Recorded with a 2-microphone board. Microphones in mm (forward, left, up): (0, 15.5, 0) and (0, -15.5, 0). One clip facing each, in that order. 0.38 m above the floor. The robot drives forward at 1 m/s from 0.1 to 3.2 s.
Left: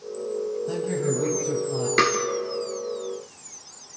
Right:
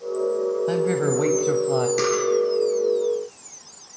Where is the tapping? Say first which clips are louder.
Left 2 dB; 45° left (ahead or behind), 3.5 m.